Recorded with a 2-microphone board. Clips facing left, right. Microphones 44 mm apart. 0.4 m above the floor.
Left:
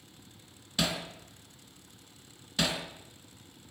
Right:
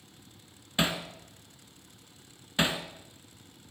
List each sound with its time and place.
0.8 s hammering: 30° right (ahead or behind), 2 m